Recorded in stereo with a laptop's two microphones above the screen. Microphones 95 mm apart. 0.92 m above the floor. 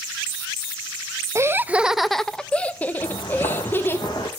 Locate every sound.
1.4 s laughter: 30° right (ahead or behind), 0.5 m; by 4.0 s 25° left (ahead or behind), 1.8 m
3.0 s footsteps: 60° left (ahead or behind), 2.5 m; by 4.3 s 45° left (ahead or behind), 3 m